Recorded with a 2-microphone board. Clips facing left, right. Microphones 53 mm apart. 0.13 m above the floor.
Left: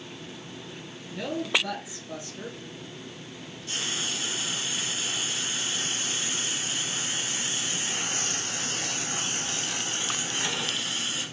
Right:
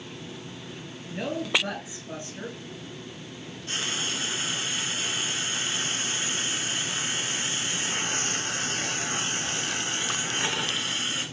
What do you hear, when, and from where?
1.1 s a woman speaking: 45° right (ahead or behind), 2.5 m
3.7 s frying: 40° right (ahead or behind), 1.3 m